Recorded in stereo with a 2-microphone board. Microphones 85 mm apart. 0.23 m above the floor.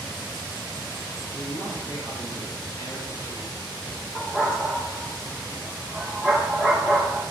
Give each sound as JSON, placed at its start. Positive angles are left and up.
{"t": 1.3, "sound": "a man speaking", "side_deg": 55, "distance_m": 3.5}
{"t": 4.2, "sound": "a dog barking", "side_deg": 5, "distance_m": 3.0}